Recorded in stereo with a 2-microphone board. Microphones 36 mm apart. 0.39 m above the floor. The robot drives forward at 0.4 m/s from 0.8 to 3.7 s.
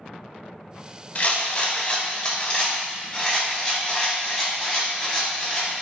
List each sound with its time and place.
1.1 s a rattle: 45° left (ahead or behind), 0.6 m; by 5.7 s 20° left (ahead or behind), 1.2 m